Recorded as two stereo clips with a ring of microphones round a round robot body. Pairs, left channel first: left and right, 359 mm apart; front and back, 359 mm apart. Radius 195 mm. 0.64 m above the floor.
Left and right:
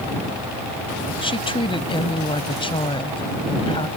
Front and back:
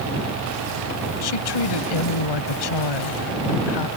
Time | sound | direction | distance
1.2 | a woman speaking | 15° left | ?